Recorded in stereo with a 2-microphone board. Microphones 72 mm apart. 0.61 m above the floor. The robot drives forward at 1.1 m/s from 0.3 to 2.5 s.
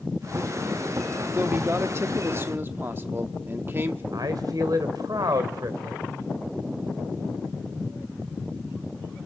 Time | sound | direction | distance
1.4 | a man speaking | 25° right (ahead or behind) | 1.1 m
4.1 | a man speaking | 60° right (ahead or behind) | 2 m